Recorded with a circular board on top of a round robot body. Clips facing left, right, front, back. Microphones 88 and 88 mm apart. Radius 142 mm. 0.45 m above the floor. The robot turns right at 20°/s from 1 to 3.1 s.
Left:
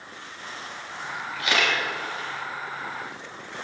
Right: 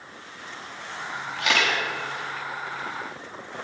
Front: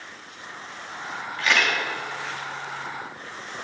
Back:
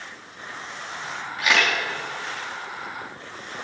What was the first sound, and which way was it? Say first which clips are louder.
A camera shutter: right 1 dB, back 1 dB; 105° right.